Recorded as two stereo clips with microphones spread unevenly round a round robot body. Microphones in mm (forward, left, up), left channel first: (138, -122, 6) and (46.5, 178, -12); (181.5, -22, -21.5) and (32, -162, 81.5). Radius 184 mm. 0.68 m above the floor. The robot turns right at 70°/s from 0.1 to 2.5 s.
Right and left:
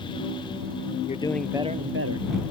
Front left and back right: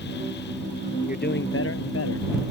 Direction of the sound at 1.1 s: 10° right.